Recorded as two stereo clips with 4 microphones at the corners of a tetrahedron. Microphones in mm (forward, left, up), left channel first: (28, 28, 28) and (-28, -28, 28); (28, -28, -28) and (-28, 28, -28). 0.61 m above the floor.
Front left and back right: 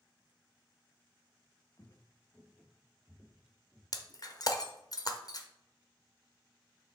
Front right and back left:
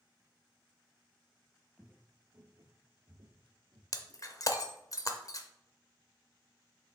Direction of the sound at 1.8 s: 55° left.